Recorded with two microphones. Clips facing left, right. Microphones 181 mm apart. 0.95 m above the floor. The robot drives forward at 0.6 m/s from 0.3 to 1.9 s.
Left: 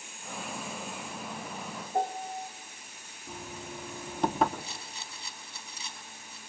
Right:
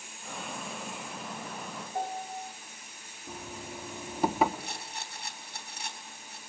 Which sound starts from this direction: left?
A piano, at 1.9 s.